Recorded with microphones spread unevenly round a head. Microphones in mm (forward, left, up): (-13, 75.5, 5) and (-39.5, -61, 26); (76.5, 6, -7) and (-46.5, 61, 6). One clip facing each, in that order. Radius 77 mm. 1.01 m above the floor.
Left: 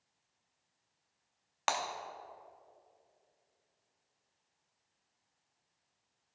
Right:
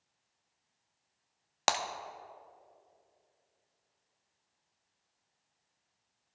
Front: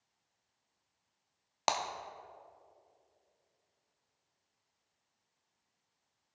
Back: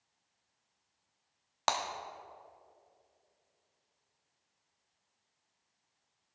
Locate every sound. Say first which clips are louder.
1.7 s breaking glass: right 3 dB, even; 100° right, 0.5 m